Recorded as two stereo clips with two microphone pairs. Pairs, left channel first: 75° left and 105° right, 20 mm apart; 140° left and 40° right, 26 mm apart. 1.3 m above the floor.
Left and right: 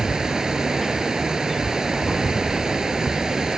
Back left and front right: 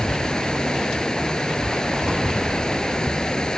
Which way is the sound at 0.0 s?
165° right.